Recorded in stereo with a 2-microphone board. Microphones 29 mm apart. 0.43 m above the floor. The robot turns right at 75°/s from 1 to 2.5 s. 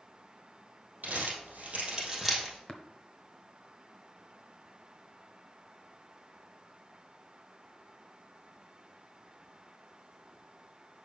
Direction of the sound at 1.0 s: 80° right.